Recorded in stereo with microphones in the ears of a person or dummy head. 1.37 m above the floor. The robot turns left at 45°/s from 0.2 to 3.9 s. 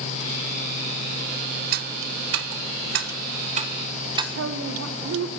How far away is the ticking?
About 1.2 m.